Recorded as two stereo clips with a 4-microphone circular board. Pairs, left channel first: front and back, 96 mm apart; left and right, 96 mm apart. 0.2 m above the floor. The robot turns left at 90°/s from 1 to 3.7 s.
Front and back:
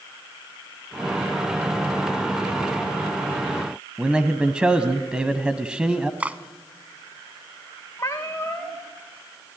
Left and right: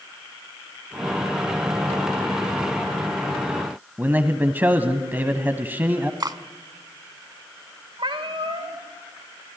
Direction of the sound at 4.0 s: 120° right.